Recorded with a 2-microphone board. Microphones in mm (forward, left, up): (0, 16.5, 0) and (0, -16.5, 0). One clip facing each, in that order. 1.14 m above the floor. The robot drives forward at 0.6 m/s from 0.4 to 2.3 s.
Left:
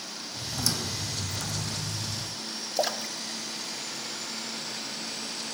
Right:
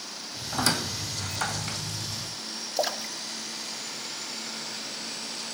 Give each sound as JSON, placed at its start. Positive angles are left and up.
{"t": 0.5, "sound": "a squeak", "side_deg": -50, "distance_m": 1.4}
{"t": 2.8, "sound": "a splash", "side_deg": 0, "distance_m": 0.9}